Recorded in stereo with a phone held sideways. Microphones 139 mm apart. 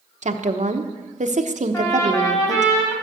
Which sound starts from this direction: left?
A trumpet, at 1.7 s.